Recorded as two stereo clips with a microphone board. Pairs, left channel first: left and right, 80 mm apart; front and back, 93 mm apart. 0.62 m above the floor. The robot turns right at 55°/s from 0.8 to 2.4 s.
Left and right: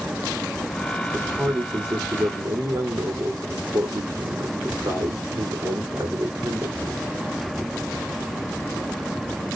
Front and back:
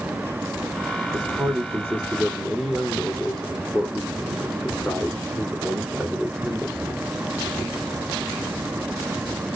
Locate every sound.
1.1 s a man speaking: 155° right, 1.5 m; by 6.8 s 85° right, 1.5 m